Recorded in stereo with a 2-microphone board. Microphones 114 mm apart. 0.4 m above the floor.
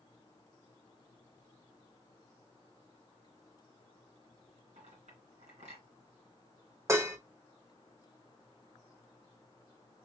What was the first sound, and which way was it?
A clink, 85° right.